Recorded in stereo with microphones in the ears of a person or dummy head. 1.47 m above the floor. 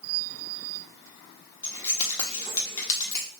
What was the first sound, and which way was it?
Keys jangling, 15° left (ahead or behind).